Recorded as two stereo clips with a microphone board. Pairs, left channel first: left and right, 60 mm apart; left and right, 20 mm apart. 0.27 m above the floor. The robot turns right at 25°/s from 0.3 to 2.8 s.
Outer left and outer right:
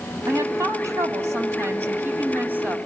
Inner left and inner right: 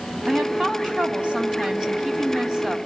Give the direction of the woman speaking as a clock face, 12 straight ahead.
3 o'clock.